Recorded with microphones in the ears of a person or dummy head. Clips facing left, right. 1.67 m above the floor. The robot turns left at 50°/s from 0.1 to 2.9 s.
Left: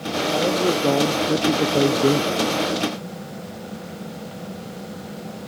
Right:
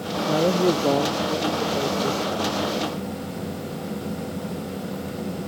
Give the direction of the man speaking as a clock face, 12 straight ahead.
5 o'clock.